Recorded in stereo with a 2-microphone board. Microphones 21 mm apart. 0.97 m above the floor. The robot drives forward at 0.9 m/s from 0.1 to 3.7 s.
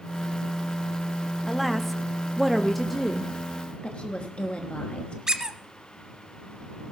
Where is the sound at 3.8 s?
65° left (ahead or behind), 1.1 m.